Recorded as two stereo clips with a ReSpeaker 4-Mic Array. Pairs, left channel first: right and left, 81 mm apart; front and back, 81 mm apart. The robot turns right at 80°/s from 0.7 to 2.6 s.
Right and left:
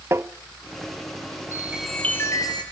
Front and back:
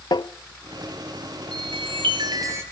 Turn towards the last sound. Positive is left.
turn(degrees=-120)